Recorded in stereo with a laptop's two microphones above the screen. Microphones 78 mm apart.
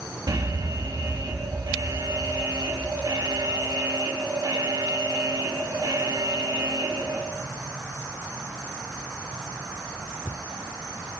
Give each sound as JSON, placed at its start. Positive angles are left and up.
{"t": 0.3, "sound": "an alarm", "side_deg": -55, "distance_m": 1.7}